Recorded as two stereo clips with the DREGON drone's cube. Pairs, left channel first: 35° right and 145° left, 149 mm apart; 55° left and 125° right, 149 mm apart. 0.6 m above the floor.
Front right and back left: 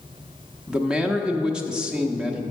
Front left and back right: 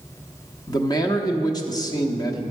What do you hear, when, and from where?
0.7 s a man speaking: 70° left, 0.7 m